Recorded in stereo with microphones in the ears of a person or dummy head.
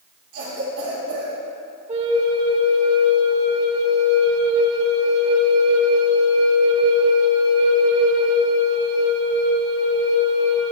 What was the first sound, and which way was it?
A cough, 60° right (ahead or behind).